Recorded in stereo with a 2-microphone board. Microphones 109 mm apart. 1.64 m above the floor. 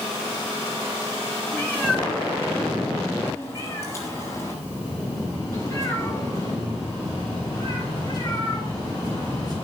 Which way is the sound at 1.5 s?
15° left (ahead or behind).